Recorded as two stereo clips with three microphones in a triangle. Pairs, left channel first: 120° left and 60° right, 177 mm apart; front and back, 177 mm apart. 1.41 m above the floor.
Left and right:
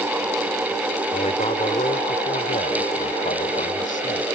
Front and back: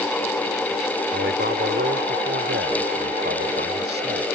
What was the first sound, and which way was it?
A man speaking, 170° left.